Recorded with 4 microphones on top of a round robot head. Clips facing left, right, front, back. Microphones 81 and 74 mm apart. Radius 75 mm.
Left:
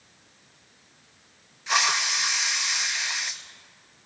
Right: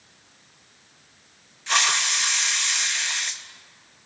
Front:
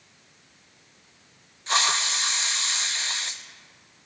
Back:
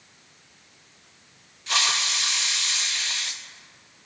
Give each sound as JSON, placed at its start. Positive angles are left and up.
{"t": 1.7, "sound": "a hiss", "azimuth_deg": 15, "distance_m": 0.6}